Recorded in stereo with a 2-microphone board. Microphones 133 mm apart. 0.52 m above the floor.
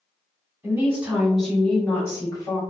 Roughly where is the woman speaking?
Centre.